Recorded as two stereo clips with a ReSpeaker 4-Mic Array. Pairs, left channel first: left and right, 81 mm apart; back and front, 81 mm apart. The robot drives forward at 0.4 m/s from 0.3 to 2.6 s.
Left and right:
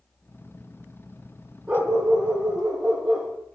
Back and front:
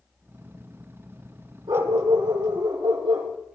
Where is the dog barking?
10° right, 9.5 m.